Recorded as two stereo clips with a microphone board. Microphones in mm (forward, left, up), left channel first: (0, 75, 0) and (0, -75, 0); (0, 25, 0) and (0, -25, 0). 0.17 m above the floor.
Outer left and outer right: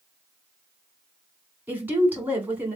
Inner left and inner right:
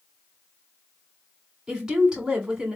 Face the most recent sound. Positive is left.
turn(degrees=-10)  # may be behind; listen again after turning